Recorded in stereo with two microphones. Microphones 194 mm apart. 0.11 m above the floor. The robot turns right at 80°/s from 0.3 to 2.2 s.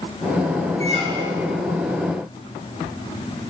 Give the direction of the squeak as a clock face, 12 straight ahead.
2 o'clock.